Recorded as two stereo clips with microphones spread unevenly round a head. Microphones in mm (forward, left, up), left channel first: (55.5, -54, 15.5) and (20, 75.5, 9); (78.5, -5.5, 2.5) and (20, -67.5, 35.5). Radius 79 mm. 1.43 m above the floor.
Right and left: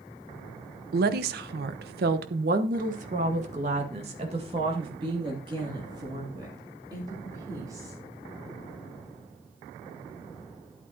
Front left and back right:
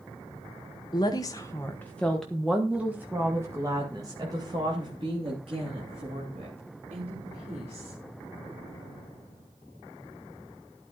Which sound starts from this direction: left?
A woman speaking, at 0.9 s.